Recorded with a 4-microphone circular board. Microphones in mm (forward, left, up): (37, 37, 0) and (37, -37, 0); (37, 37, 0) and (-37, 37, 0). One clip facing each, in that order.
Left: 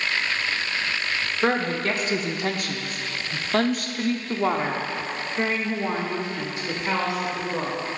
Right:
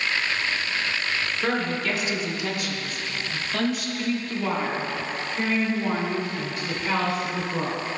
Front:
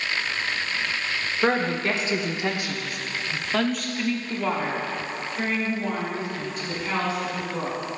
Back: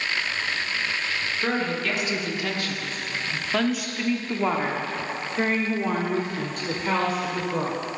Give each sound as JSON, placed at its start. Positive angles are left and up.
{"t": 1.4, "sound": "a woman speaking", "azimuth_deg": 45, "distance_m": 1.8}